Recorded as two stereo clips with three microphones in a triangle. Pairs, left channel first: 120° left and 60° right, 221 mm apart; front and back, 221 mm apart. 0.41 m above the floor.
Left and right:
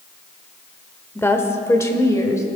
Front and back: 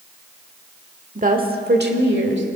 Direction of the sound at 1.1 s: 170° right.